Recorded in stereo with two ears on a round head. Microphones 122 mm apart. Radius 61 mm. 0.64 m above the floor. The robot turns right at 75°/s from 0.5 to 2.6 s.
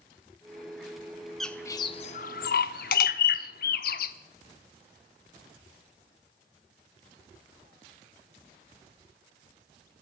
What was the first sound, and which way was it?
A bird, centre (ahead or behind).